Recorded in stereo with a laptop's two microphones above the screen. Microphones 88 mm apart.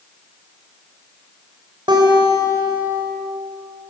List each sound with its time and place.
1.9 s a guitar: 55° right (ahead or behind), 3.5 m